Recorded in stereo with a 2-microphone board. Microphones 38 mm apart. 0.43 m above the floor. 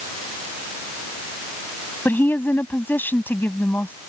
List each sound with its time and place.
2.0 s a woman speaking: 65° left (ahead or behind)